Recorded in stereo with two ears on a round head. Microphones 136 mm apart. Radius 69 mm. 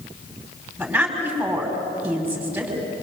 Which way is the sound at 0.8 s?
10° right (ahead or behind).